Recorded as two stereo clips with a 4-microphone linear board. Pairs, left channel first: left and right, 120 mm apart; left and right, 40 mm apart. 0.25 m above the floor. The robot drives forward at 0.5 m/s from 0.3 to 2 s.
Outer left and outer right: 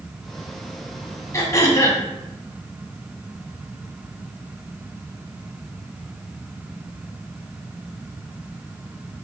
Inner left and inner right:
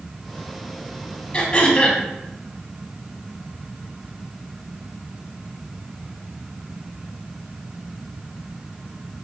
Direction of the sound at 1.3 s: 25° left (ahead or behind).